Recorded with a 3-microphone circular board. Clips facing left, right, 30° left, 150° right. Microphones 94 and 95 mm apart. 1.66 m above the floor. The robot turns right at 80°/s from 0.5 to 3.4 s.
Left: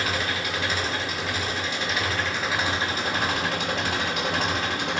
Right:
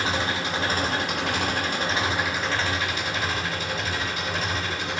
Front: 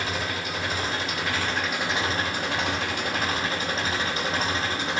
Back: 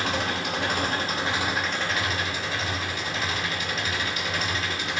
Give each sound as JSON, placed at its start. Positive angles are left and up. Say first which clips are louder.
{"t": 0.0, "sound": "an engine running", "louder": "right 1 dB, back 2 dB", "azimuth_deg": -150, "distance_m": 2.0}